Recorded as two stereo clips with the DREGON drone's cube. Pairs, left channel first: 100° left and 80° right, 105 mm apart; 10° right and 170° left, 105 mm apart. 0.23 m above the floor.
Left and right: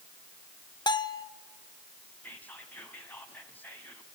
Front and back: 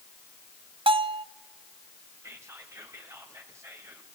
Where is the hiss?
No hiss in this recording.